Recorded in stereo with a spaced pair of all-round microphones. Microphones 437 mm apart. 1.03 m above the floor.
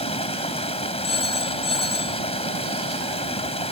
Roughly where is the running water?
Centre.